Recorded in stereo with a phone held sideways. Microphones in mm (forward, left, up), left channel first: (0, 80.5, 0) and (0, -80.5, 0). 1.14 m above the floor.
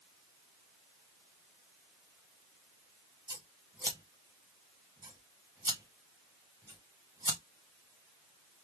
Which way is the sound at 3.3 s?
25° right (ahead or behind).